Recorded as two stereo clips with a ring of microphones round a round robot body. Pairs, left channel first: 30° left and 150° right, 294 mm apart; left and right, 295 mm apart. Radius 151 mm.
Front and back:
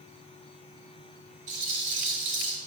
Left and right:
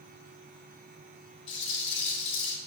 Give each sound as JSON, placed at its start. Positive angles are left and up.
{"t": 1.5, "sound": "a rattle", "azimuth_deg": 145, "distance_m": 3.0}